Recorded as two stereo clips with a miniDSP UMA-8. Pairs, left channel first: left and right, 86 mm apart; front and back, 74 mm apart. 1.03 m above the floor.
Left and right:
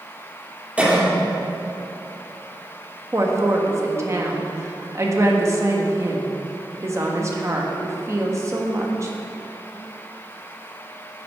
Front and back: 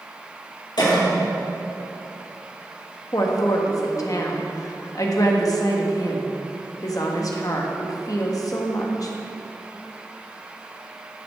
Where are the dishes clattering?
I don't hear dishes clattering.